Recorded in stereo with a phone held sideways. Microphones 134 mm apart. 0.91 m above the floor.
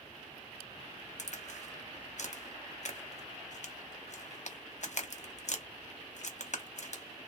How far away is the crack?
About 0.6 m.